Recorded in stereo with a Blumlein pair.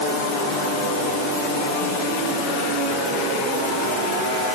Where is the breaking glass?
I don't hear breaking glass.